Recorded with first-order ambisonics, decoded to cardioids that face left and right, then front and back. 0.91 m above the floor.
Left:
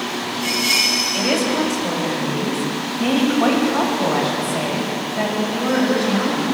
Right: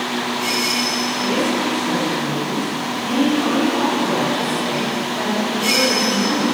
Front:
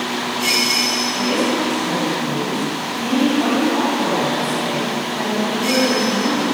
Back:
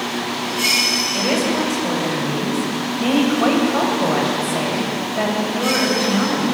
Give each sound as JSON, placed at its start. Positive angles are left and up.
{"t": 1.1, "sound": "a woman speaking", "azimuth_deg": 130, "distance_m": 4.5}